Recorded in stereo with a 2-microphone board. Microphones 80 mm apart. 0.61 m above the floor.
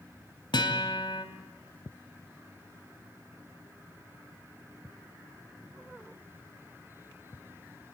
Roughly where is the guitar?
Left.